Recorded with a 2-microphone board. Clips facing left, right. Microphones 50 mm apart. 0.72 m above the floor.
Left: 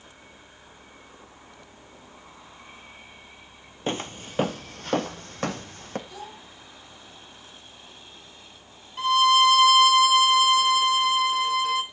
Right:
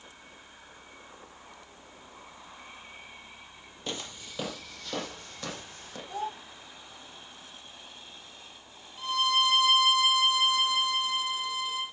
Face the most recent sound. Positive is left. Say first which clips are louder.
# left 9 dB
turn(degrees=70)  # may be behind; listen again after turning